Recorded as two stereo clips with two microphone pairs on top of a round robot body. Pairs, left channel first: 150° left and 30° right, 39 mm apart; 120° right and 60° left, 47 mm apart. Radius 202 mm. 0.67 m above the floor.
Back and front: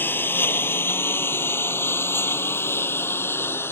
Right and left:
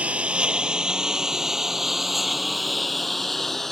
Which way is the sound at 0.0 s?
120° left.